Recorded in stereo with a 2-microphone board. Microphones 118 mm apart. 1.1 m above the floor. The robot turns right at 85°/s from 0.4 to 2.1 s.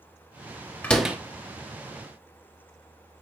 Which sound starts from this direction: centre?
A door slam, at 0.8 s.